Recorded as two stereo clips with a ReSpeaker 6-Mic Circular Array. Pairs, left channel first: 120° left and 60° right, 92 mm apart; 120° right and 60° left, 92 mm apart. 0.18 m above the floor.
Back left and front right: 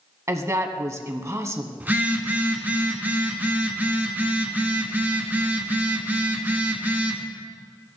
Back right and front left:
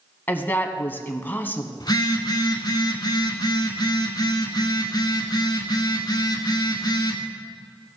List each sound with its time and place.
0.3 s a woman speaking: 70° right, 1.1 m
1.8 s a phone buzzing: 120° right, 1.6 m